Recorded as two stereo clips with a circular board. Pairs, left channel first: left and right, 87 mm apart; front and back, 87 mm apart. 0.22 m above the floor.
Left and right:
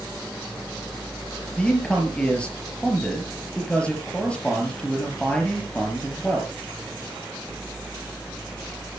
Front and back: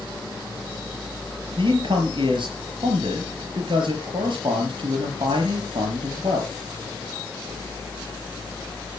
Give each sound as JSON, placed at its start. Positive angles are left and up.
{"t": 1.6, "sound": "a man speaking", "azimuth_deg": 170, "distance_m": 5.5}